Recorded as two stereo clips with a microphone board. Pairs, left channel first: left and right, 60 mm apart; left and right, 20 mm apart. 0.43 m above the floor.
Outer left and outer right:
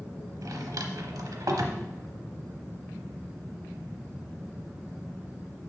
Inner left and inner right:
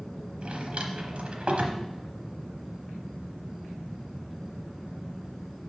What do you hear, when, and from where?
0.4 s a drawer: 80° right, 0.8 m